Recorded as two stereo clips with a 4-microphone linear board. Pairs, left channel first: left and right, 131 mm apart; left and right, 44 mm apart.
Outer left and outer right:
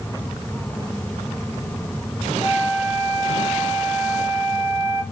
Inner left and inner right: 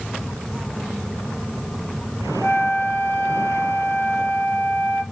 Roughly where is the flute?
Left.